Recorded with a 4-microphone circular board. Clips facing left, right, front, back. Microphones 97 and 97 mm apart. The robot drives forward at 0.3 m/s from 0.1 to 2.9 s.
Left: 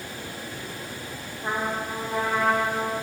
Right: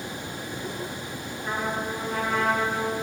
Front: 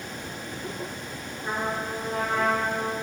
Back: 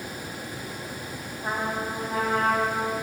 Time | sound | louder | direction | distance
1.4 | a trumpet | left 1 dB, back 1 dB | 150° left | 1.3 m